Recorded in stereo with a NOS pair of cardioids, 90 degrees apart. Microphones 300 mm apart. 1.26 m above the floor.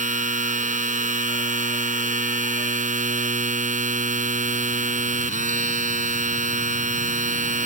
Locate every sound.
0.0 s a machine running: 25° right